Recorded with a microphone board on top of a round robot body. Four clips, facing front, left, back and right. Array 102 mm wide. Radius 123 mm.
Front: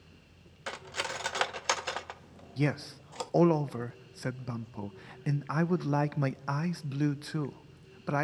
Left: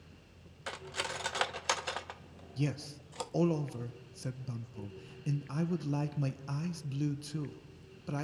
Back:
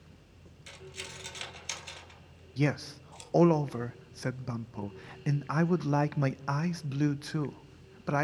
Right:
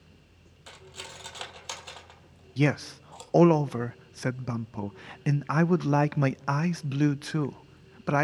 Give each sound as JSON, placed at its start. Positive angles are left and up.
{"t": 0.7, "sound": "cutlery clinking", "azimuth_deg": 25, "distance_m": 0.8}
{"t": 2.6, "sound": "a man speaking", "azimuth_deg": -95, "distance_m": 0.6}